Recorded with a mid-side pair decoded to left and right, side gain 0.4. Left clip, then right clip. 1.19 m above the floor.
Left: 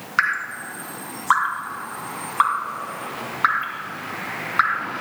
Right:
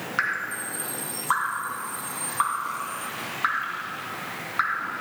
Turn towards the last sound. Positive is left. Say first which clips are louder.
# left 5 dB
turn(degrees=50)